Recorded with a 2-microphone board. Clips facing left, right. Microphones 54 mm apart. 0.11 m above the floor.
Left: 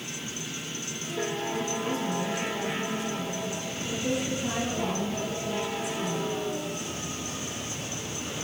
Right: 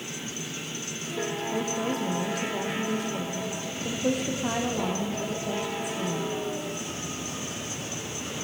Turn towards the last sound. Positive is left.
turn(degrees=-55)  # may be behind; listen again after turning